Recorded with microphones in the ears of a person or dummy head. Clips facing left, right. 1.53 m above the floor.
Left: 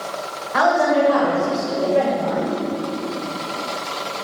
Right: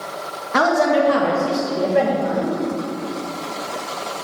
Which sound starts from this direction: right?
A woman speaking, at 0.5 s.